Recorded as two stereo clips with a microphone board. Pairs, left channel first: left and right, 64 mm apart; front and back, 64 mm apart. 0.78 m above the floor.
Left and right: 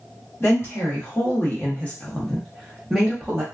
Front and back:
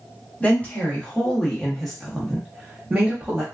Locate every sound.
0.4 s a woman speaking: 65° left, 1.4 m; by 3.4 s 150° right, 1.0 m